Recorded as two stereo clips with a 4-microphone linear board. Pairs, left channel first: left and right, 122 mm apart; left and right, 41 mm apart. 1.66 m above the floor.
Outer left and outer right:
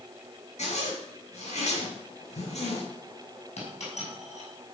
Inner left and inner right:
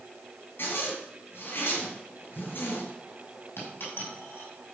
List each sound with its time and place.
0.6 s a zipper: 60° left (ahead or behind), 5 m
3.6 s a dropped coin: 60° left (ahead or behind), 5.5 m